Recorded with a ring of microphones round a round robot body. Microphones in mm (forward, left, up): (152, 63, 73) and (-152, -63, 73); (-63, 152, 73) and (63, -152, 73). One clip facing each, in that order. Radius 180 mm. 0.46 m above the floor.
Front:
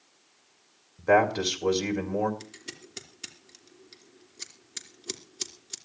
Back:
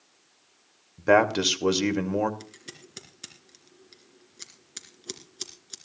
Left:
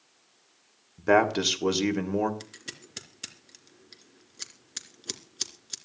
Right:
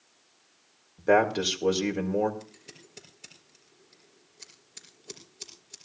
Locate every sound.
1.0 s a man speaking: 175° left, 2.5 m
2.4 s scissors: 110° left, 3 m